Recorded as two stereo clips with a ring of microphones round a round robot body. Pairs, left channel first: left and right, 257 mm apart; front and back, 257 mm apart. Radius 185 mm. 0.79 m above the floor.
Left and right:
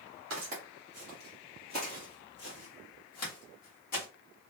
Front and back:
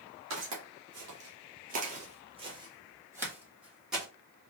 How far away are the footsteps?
About 1.1 m.